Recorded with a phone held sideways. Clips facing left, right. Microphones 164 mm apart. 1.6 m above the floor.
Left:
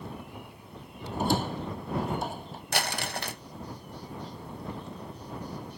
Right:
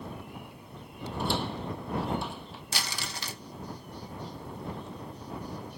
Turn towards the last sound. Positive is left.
turn(degrees=55)  # may be behind; listen again after turning